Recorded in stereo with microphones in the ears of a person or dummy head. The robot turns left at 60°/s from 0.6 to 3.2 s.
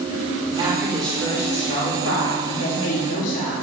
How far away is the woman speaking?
About 2.5 m.